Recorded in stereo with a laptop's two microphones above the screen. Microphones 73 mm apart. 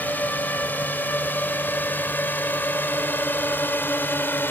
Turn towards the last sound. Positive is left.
turn(degrees=30)  # may be behind; listen again after turning